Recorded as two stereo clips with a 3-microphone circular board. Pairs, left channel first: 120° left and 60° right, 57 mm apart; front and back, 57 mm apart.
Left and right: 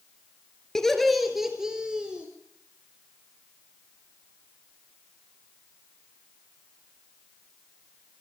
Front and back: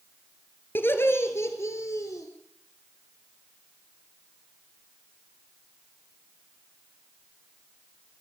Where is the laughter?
40° left, 2 m; by 2.3 s 10° left, 3 m.